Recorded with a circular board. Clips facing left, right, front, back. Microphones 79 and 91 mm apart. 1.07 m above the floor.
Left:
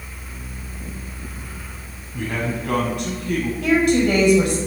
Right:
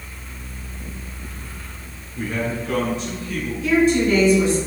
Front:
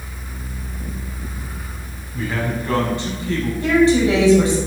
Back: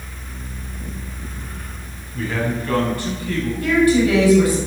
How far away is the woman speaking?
About 6 m.